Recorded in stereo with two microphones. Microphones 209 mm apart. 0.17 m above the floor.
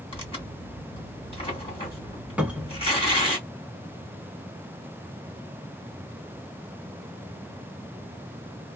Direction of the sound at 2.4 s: 5° right (ahead or behind).